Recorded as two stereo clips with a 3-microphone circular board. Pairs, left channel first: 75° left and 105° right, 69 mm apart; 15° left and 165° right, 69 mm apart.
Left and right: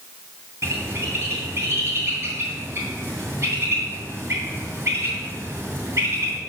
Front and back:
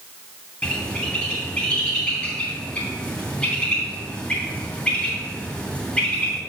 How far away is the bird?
About 2.5 m.